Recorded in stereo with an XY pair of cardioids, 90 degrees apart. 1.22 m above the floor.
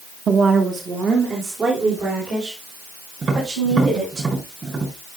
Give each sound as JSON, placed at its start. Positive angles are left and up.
{"t": 0.3, "sound": "a woman speaking", "azimuth_deg": -55, "distance_m": 1.1}
{"t": 3.2, "sound": "tapping", "azimuth_deg": -40, "distance_m": 5.5}